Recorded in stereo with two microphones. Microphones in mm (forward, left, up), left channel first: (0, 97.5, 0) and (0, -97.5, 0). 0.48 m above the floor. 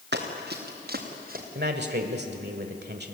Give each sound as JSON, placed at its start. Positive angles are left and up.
{"t": 0.1, "sound": "running footsteps", "side_deg": -65, "distance_m": 4.0}
{"t": 1.6, "sound": "a man speaking", "side_deg": -60, "distance_m": 1.6}